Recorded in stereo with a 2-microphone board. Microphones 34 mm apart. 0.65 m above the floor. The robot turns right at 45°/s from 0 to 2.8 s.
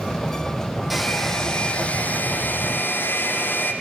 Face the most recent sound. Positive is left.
turn(degrees=80)